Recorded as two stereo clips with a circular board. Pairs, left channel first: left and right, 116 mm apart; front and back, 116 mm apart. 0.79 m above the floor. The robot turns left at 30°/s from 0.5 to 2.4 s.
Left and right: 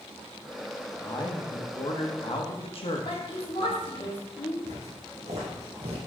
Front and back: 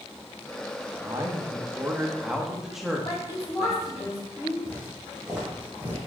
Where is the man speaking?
135° left, 1.0 m; by 4.0 s 95° left, 1.0 m.